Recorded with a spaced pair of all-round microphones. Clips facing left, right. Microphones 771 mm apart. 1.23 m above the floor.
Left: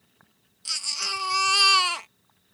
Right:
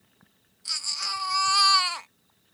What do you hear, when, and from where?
0.7 s a baby crying: 60° left (ahead or behind)